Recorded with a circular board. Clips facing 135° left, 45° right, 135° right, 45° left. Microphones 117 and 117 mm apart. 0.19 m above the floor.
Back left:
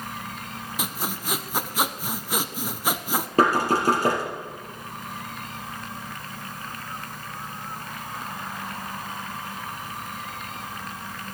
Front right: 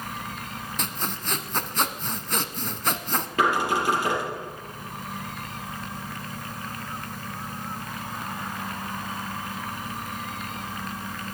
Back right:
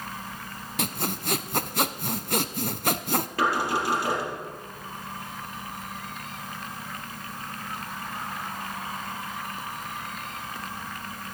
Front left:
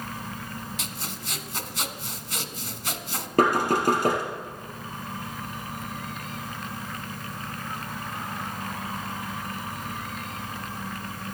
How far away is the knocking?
About 3.5 m.